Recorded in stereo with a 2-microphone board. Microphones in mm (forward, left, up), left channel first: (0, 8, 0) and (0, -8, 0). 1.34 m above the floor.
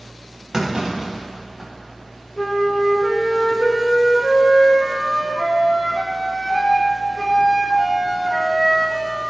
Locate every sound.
0.5 s a clunk: 35° right (ahead or behind), 1.7 m
2.4 s a flute: 20° left (ahead or behind), 0.8 m